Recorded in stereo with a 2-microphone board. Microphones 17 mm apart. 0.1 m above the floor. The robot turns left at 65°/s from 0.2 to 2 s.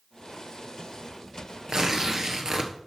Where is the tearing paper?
45° right (ahead or behind), 1.3 m.